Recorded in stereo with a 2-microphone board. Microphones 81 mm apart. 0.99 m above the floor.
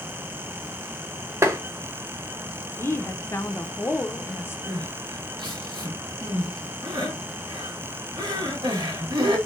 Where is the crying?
70° right (ahead or behind), 1.7 m.